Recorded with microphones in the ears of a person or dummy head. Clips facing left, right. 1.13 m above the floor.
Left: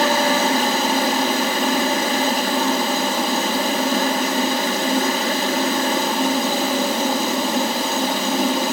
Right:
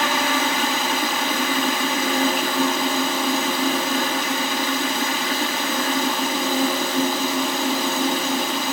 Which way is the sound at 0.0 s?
35° left (ahead or behind).